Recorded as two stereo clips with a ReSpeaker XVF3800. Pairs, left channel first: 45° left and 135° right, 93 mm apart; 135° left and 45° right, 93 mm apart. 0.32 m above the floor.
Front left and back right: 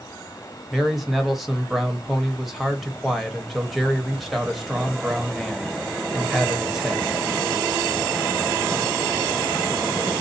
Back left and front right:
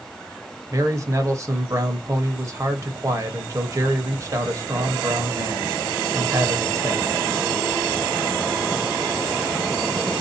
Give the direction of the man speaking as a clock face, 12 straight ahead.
2 o'clock.